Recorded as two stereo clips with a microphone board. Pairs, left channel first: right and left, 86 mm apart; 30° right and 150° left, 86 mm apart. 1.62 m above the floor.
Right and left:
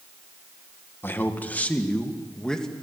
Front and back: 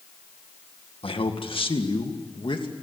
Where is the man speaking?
25° right, 1.9 m; by 2.7 s 5° right, 3 m.